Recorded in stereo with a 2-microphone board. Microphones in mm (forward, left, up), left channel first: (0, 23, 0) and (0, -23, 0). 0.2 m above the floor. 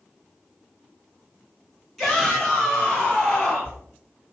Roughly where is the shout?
Centre.